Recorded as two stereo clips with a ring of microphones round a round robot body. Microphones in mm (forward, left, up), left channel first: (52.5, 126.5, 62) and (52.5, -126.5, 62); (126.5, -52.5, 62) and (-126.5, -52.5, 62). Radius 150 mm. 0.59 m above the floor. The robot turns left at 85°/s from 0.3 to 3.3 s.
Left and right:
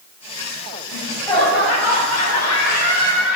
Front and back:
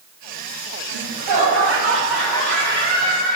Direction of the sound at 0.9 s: 160° right.